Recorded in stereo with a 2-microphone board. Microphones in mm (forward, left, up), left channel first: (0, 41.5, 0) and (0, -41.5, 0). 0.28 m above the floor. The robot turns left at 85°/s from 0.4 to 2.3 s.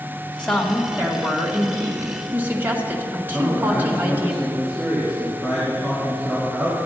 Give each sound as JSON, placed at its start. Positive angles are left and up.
{"t": 0.4, "sound": "a woman speaking", "azimuth_deg": 20, "distance_m": 1.8}
{"t": 3.3, "sound": "a man speaking", "side_deg": 0, "distance_m": 2.5}